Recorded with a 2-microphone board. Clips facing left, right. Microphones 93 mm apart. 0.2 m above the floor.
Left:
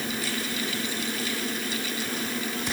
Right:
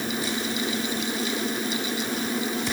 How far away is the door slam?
I don't hear a door slam.